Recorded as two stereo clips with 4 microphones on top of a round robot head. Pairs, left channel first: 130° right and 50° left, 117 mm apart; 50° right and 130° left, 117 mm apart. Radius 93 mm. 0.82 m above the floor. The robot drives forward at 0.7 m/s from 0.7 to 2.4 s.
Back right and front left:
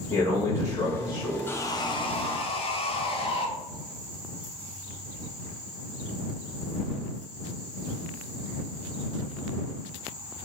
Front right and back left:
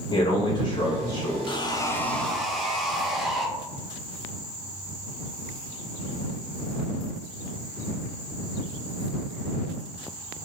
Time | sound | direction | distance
0.1 | a man speaking | 75° right | 1.4 m
1.5 | sawing | 65° right | 0.6 m